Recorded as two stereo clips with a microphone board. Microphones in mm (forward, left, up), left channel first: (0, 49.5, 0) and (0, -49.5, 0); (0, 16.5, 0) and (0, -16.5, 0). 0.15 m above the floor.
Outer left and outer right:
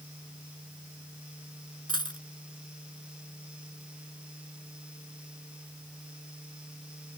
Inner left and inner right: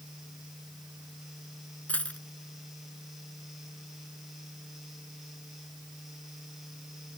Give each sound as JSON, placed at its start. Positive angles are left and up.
{"t": 1.9, "sound": "a dropped coin", "side_deg": 50}